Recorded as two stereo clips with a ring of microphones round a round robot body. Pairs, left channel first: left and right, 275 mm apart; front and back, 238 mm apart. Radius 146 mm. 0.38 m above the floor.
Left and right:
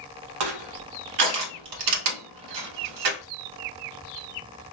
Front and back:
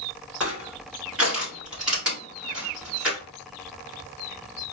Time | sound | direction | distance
0.4 | crushing | 95° right | 0.9 m